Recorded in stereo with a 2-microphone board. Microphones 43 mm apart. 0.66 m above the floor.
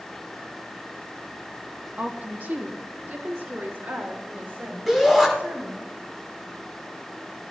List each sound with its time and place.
2.0 s a woman speaking: 30° right (ahead or behind), 0.9 m; by 5.9 s 80° right, 4.5 m
4.9 s a shout: centre (ahead or behind), 5 m